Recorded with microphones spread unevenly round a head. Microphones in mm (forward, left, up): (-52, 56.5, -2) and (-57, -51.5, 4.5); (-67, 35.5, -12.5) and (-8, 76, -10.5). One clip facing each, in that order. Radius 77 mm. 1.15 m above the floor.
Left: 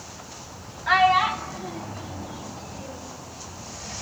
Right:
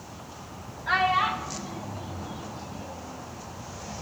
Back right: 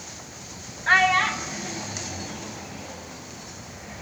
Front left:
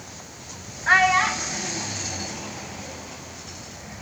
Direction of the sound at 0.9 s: 115° left.